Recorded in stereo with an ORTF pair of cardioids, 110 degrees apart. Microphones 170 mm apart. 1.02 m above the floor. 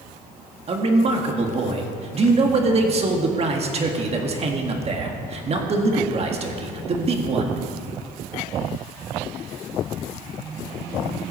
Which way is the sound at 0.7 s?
40° right.